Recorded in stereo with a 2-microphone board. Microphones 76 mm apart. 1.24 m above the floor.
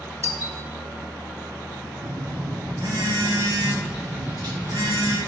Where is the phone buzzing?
70° right (ahead or behind), 1.4 m.